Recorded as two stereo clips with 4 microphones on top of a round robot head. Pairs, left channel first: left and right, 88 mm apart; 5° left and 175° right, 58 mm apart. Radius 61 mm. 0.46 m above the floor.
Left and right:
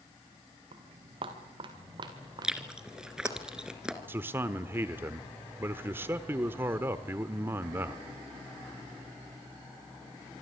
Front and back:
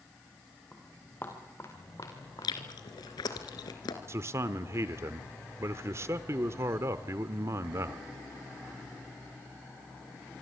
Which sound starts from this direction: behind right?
A man speaking, at 4.1 s.